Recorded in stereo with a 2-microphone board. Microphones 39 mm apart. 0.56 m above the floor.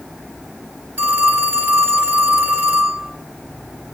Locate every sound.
1.0 s a phone ringing: 55° right (ahead or behind), 1.4 m